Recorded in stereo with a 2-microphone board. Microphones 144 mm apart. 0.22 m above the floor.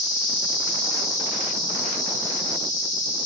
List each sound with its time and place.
0.0 s an insect: 70° left (ahead or behind), 1.7 m